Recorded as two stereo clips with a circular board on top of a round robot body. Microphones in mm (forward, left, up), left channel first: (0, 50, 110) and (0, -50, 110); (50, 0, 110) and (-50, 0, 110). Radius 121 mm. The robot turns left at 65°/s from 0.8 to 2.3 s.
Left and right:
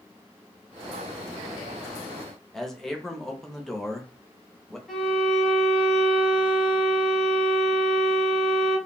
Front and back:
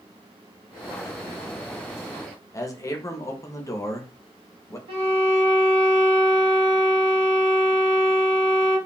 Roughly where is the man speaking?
Ahead.